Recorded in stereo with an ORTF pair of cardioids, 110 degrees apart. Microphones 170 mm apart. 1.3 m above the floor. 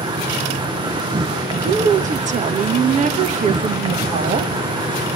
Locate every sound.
0.0 s an insect: 30° right, 1.0 m
1.6 s a woman speaking: 45° right, 1.4 m